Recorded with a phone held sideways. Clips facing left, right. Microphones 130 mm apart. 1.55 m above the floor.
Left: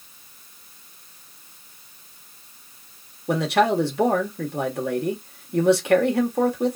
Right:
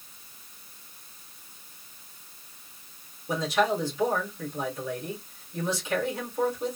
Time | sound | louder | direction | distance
3.3 | a man speaking | left 6 dB | 70° left (ahead or behind) | 1.1 m